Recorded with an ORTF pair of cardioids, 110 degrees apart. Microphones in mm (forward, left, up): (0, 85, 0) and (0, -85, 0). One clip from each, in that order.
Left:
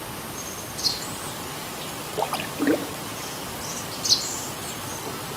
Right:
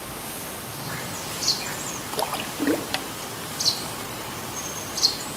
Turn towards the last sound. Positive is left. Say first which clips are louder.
# left 1 dB
turn(degrees=10)